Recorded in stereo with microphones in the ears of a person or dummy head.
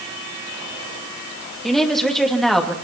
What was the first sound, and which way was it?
A woman speaking, centre (ahead or behind).